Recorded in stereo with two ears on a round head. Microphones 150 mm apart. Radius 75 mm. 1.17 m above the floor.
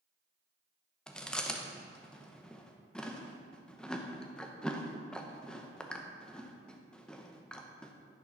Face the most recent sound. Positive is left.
turn(degrees=5)  # may be behind; listen again after turning